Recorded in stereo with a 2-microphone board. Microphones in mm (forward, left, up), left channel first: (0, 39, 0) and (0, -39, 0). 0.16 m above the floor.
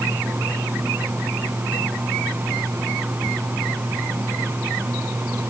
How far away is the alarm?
I don't hear an alarm.